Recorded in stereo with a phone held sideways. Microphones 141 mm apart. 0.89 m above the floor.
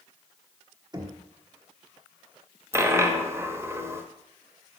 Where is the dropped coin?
20° right (ahead or behind), 0.6 m.